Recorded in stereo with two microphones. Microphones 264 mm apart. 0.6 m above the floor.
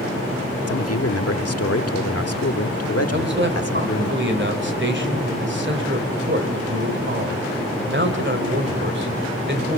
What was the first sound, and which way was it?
A man speaking, 65° left (ahead or behind).